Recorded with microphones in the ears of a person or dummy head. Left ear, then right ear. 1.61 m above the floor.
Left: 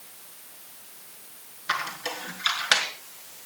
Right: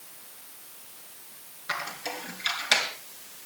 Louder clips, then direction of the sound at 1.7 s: Left 4 dB; 40° left (ahead or behind).